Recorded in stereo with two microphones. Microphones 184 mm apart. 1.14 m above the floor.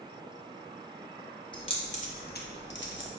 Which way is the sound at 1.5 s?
25° left (ahead or behind).